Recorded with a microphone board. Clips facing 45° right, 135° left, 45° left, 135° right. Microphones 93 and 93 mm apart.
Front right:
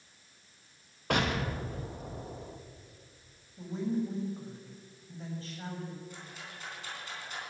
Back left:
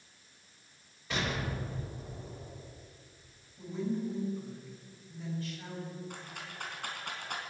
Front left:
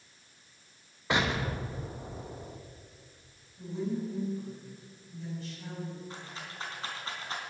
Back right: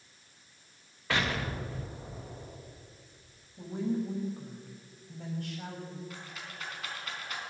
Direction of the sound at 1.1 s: 25° right.